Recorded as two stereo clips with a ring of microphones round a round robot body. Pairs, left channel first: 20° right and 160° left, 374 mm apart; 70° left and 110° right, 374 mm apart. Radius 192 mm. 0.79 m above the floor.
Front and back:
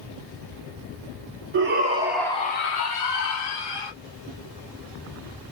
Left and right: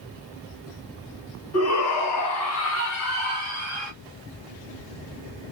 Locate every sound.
1.5 s a shout: 110° left, 1.0 m; by 3.9 s 5° right, 1.8 m